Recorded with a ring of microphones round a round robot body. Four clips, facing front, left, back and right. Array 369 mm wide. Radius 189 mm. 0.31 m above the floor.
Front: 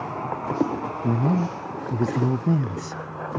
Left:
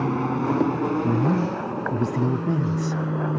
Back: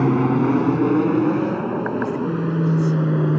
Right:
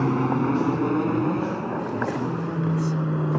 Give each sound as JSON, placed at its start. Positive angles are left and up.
{"t": 0.0, "sound": "an aircraft", "azimuth_deg": -175}
{"t": 1.0, "sound": "a man speaking", "azimuth_deg": 40}